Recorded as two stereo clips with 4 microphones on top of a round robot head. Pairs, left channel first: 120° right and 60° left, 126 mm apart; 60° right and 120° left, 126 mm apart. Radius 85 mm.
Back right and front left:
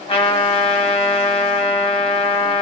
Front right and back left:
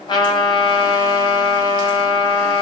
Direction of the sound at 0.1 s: 100° right.